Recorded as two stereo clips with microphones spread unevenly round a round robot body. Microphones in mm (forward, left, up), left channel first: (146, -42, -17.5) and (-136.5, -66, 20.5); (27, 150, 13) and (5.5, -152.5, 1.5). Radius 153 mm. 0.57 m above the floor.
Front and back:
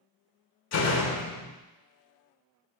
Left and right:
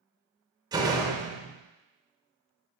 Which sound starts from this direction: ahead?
A door slam, at 0.7 s.